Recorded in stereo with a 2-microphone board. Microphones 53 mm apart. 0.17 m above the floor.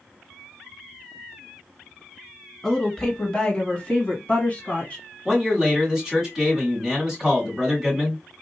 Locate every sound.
2.6 s a woman speaking: 15° left (ahead or behind), 2.0 m; by 5.0 s 25° left (ahead or behind), 1.8 m
5.2 s a man speaking: 10° right (ahead or behind), 1.6 m